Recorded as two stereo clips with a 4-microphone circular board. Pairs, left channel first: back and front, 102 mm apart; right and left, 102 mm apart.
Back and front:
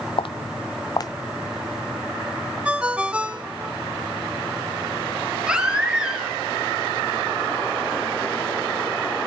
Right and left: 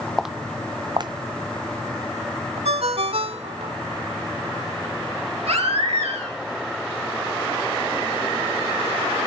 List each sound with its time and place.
0.2 s footsteps: straight behind, 0.6 m; by 3.6 s 110° left, 3 m
2.6 s a ringtone: 80° left, 1.3 m
5.5 s a baby crying: 80° left, 6 m